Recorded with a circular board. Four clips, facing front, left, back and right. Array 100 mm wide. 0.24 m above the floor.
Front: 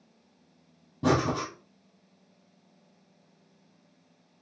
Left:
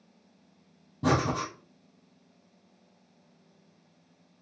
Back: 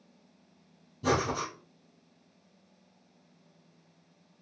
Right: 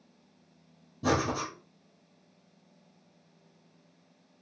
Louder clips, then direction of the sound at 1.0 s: Left 2 dB, front 3 dB; 25° left.